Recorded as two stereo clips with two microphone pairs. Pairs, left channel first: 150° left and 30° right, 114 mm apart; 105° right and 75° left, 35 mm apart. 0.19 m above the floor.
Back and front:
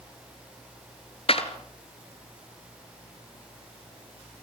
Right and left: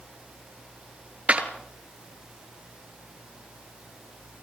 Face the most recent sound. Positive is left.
turn(degrees=125)